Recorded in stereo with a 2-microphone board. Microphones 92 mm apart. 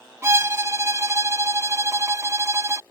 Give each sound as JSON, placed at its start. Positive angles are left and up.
{"t": 0.2, "sound": "a violin", "side_deg": -30}